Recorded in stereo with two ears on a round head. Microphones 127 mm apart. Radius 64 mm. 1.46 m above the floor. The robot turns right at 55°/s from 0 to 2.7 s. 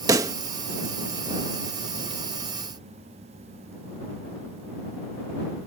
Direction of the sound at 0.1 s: 25° right (ahead or behind).